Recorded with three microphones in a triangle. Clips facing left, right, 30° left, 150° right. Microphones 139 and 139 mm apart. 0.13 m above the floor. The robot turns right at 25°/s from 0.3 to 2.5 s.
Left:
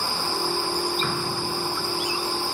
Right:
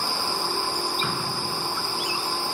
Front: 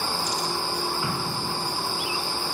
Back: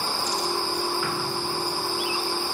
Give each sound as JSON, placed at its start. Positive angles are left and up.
{"t": 1.0, "sound": "an explosion", "azimuth_deg": -10, "distance_m": 1.1}